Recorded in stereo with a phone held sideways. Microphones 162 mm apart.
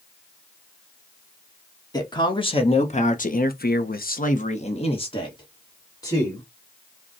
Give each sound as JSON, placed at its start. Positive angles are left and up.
{"t": 1.9, "sound": "a man speaking", "side_deg": 25, "distance_m": 1.6}